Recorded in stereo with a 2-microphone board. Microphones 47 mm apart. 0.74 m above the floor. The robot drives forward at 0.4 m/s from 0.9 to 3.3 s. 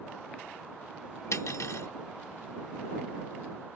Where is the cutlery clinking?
85° left; by 1.9 s 75° left (ahead or behind).